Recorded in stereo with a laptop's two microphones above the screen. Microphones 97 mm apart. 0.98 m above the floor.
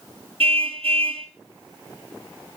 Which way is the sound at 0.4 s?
70° right (ahead or behind).